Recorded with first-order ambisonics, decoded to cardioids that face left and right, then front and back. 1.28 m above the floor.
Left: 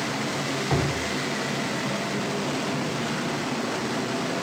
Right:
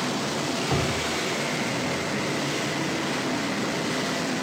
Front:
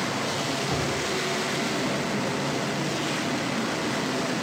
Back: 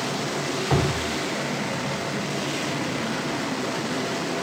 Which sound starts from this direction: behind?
Dripping, at 0.7 s.